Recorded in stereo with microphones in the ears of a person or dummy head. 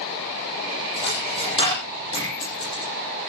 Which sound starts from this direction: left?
A dropped coin, at 1.0 s.